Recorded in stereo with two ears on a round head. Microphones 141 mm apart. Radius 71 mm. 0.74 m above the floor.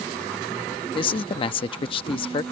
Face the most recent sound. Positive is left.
turn(degrees=35)  # may be behind; listen again after turning